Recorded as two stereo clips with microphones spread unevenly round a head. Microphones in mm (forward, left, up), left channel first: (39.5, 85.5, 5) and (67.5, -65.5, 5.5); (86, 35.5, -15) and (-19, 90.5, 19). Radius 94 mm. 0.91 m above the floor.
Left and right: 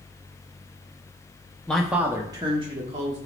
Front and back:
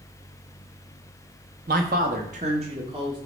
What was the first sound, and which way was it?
A man speaking, 175° right.